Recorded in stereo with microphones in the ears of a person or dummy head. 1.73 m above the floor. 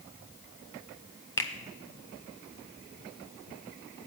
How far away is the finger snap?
About 0.5 m.